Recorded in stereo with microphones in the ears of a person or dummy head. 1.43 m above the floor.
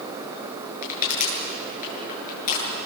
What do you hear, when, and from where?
0.8 s crushing: 45° left (ahead or behind), 8.5 m